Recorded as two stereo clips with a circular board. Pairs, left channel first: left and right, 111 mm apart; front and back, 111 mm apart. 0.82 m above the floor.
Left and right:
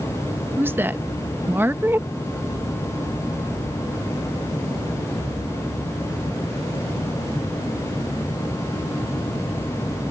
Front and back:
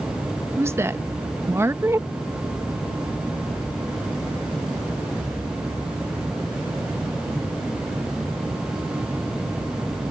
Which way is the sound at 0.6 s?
140° right.